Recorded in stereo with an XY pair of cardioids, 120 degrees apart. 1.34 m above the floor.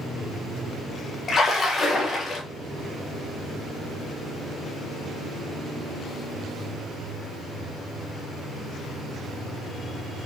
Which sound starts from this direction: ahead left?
A splash, at 1.3 s.